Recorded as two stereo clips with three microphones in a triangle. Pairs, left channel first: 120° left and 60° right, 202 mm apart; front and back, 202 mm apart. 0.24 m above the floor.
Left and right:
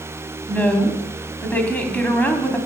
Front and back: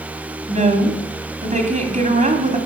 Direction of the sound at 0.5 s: 165° right.